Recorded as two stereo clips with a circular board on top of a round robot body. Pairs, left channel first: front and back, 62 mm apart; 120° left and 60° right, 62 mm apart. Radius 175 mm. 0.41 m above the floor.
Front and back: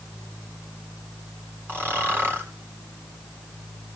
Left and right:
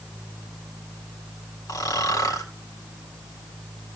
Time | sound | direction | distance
1.7 | snoring | 125° left | 2.5 m